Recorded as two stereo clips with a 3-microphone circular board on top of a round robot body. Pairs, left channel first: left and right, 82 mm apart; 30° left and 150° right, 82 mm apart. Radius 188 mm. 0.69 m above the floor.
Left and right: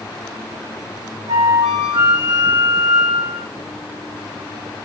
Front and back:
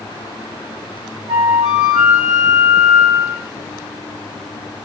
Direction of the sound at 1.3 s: 110° right.